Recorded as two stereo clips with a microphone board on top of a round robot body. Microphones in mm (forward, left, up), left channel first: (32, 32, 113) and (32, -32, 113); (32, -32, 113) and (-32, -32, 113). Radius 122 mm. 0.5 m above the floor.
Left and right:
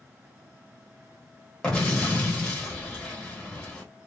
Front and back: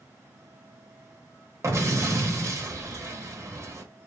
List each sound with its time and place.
1.6 s an explosion: 165° left, 1.7 m